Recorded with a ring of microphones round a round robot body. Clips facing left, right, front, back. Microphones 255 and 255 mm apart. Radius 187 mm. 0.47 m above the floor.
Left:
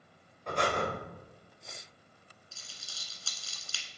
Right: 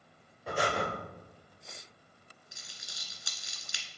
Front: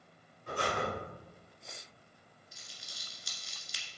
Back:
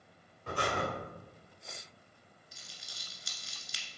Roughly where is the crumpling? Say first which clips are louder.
Right 1 dB, even; behind.